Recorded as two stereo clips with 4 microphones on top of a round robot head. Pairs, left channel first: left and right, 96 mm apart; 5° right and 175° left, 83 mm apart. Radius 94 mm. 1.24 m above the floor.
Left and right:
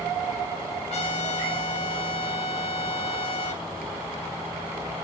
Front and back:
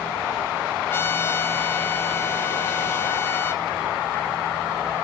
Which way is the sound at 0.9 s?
55° left.